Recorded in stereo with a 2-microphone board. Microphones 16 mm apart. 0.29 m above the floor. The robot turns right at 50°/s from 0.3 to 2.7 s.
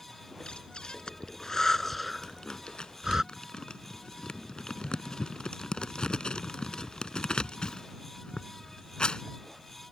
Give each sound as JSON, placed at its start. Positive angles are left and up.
{"t": 0.4, "sound": "breathing", "side_deg": 80}
{"t": 2.2, "sound": "crumpling", "side_deg": 35}